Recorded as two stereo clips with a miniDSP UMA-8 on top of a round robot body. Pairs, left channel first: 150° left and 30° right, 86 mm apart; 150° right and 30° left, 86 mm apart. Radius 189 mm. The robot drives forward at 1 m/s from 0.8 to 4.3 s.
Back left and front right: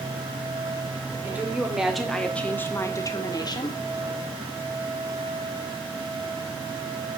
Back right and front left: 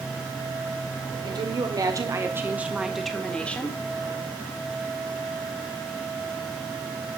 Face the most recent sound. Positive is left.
turn(degrees=150)